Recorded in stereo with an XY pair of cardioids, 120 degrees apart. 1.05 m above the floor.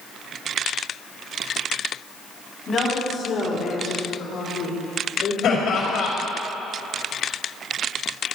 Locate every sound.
2.7 s a woman speaking: 45° left, 3.5 m; by 5.3 s 70° left, 3.5 m
5.4 s laughter: 65° left, 4.5 m